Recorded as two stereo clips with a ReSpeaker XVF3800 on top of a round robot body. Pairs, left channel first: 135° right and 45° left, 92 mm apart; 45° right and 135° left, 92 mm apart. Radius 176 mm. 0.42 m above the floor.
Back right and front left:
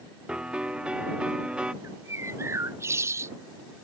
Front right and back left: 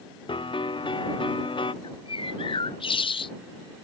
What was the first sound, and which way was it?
A piano, 35° right.